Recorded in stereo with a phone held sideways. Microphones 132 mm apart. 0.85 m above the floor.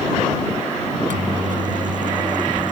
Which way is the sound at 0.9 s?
85° right.